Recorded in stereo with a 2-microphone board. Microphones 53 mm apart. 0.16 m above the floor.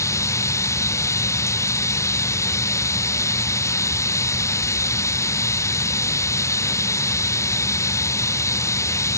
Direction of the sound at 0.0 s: 85° left.